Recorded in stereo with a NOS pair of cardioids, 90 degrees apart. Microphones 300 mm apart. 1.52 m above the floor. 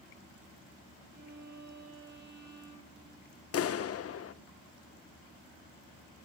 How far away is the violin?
About 10 m.